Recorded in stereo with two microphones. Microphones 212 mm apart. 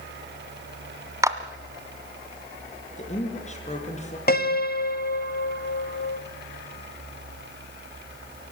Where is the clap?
15° right (ahead or behind), 1.5 m.